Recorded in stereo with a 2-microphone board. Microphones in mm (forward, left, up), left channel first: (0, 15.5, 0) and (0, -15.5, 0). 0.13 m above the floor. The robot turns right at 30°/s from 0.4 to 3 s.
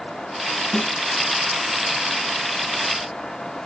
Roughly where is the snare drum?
Left.